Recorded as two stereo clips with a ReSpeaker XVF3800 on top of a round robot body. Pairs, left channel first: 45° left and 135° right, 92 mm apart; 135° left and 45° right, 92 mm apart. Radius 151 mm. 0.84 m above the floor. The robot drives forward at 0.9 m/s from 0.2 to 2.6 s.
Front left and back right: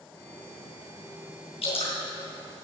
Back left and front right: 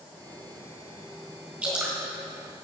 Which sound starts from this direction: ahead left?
Dripping, at 1.6 s.